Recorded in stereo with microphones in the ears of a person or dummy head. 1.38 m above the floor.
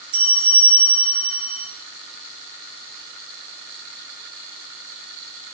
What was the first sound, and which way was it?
A bell, 5° right (ahead or behind).